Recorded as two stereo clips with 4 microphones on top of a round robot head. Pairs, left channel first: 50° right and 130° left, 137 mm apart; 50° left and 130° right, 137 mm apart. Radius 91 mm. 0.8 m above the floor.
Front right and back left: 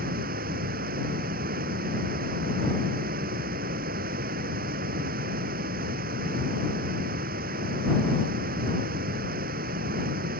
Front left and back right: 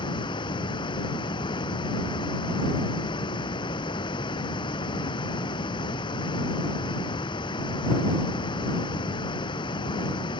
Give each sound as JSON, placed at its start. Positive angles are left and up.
{"t": 0.0, "sound": "running water", "azimuth_deg": 110}